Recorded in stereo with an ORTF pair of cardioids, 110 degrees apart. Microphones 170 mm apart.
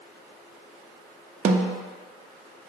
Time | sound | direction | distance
1.4 | a snare drum | 45° right | 0.5 m